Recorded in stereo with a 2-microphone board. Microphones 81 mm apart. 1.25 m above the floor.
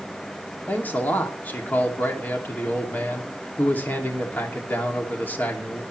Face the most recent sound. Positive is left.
turn(degrees=25)  # may be behind; listen again after turning